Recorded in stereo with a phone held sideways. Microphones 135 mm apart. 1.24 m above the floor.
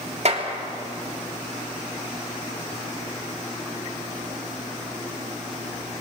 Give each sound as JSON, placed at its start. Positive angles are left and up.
{"t": 0.2, "sound": "a clap", "side_deg": -55, "distance_m": 3.0}